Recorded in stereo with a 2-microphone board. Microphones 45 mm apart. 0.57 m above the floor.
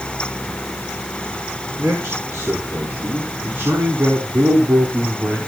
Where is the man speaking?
75° right (ahead or behind), 6.5 m; by 5.4 s 65° right (ahead or behind), 4.5 m.